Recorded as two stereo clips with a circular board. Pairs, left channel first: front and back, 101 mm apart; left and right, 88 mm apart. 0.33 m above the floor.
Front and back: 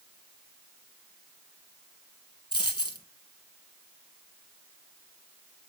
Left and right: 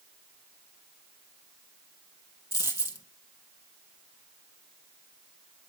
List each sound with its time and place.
2.5 s a dropped coin: 40° left, 1.8 m